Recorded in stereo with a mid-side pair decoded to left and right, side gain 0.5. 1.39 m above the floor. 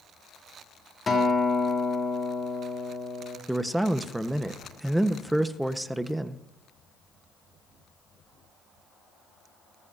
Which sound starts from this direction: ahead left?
A guitar, at 1.1 s.